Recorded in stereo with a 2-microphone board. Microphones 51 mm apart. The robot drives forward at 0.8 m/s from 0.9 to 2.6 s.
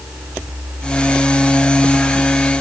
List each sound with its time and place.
Only background noise.